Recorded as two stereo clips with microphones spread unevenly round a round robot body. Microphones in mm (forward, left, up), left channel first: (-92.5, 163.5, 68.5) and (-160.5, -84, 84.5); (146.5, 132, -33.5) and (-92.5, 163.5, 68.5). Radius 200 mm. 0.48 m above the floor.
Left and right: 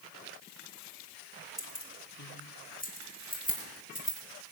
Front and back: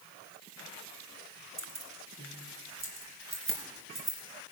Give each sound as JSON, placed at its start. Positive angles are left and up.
{"t": 1.6, "sound": "keys jangling", "azimuth_deg": 130, "distance_m": 2.5}